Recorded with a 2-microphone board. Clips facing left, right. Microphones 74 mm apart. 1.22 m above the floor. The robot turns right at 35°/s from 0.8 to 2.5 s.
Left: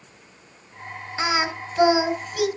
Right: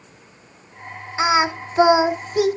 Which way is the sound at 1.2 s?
20° right (ahead or behind).